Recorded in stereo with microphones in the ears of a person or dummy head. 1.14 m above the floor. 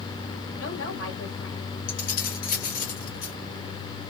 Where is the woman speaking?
75° left (ahead or behind), 1.8 m.